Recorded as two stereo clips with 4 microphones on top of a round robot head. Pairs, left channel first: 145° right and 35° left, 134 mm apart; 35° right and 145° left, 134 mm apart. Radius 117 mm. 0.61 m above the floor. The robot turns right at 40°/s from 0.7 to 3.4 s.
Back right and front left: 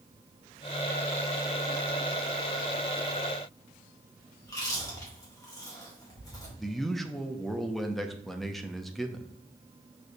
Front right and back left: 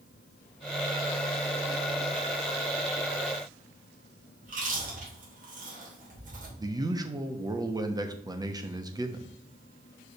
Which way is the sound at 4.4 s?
155° left.